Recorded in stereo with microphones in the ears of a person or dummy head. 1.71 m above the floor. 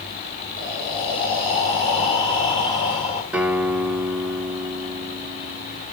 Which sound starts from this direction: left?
Breathing, at 0.6 s.